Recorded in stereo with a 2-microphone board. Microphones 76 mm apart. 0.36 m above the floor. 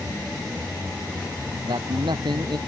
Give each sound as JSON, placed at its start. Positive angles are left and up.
{"t": 1.6, "sound": "a man speaking", "side_deg": -80}